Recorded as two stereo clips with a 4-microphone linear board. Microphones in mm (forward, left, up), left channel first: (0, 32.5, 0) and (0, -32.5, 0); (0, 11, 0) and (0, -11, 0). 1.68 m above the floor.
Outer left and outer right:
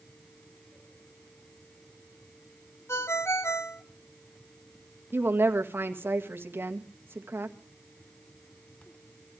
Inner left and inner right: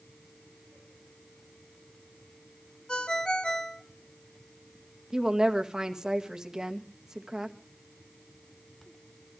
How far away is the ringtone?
About 1.1 m.